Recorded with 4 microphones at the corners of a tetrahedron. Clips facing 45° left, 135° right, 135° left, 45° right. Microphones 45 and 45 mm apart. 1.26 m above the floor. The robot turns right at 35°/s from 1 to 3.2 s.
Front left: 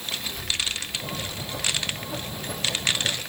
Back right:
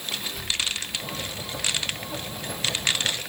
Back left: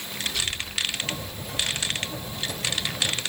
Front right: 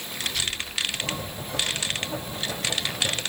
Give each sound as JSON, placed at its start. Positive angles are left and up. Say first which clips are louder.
{"t": 0.2, "sound": "a child speaking", "louder": "back right 1 dB, even", "azimuth_deg": -55, "distance_m": 7.5}